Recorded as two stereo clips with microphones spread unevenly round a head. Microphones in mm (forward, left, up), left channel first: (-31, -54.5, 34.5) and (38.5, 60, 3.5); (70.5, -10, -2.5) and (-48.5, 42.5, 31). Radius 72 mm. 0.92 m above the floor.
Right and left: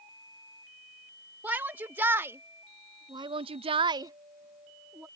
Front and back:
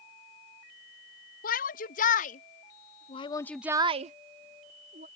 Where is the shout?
20° right; by 5.1 s 140° left.